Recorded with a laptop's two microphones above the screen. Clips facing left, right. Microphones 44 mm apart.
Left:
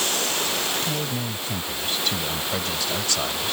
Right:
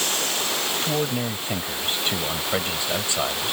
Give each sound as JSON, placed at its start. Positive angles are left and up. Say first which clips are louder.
{"t": 0.8, "sound": "a man speaking", "louder": "right 3 dB", "side_deg": -40}